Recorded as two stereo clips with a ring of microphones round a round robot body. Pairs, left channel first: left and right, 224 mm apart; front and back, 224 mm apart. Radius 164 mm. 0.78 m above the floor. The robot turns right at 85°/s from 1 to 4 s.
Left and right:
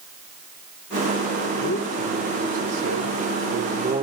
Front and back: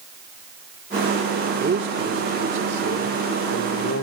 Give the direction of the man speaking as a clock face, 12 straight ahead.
8 o'clock.